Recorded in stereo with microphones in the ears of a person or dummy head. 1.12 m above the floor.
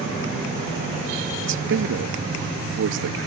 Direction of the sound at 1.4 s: 60° right (ahead or behind).